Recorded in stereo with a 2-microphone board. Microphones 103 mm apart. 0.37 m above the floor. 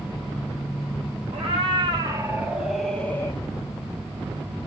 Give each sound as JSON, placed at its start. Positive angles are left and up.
{"t": 1.3, "sound": "a cat meowing", "side_deg": -65, "distance_m": 1.2}